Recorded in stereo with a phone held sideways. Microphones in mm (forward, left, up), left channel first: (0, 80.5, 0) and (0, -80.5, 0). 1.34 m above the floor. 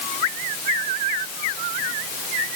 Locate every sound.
Only background noise.